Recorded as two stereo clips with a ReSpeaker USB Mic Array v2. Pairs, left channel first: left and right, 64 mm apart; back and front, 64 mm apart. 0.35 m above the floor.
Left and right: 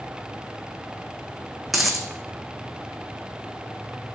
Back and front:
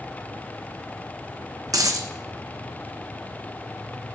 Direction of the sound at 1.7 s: Straight ahead.